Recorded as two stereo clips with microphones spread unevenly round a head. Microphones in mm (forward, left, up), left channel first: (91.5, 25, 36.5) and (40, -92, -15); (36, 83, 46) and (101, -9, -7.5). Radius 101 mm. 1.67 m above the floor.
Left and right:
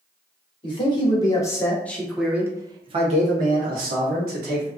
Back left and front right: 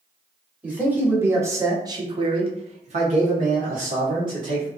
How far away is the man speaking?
About 1.2 m.